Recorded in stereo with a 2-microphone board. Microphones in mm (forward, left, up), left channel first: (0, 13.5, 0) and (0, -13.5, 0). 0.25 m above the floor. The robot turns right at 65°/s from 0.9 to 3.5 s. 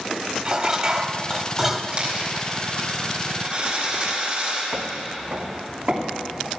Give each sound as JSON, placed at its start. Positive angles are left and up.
{"t": 0.5, "sound": "dishes clattering", "side_deg": -20, "distance_m": 0.9}
{"t": 1.9, "sound": "a dropped coin", "side_deg": -25, "distance_m": 5.0}
{"t": 4.7, "sound": "footsteps", "side_deg": -70, "distance_m": 1.5}